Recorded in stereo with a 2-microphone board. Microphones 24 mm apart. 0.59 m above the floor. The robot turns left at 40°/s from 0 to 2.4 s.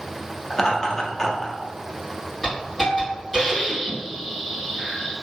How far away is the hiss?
About 1.9 m.